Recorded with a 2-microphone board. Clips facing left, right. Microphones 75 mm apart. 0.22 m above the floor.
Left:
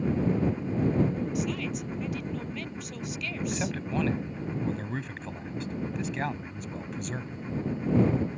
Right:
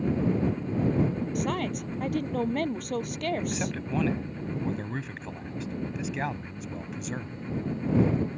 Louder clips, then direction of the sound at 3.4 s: Even; centre (ahead or behind).